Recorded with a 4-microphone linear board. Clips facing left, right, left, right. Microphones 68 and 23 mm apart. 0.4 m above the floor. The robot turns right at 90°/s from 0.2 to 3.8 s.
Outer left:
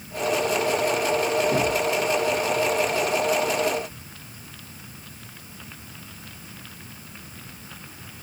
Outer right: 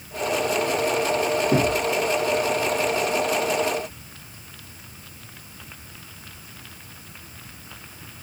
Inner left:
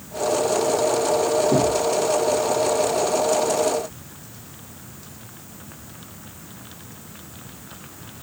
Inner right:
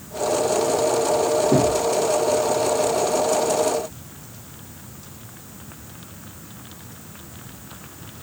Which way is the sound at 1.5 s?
30° right (ahead or behind).